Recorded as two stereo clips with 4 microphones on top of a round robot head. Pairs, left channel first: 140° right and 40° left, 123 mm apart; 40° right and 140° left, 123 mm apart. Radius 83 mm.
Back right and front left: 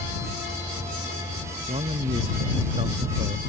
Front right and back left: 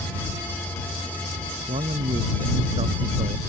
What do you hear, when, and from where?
1.7 s a man speaking: 90° left